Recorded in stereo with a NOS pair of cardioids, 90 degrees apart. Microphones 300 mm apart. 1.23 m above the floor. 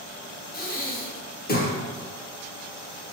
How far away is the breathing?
About 0.9 m.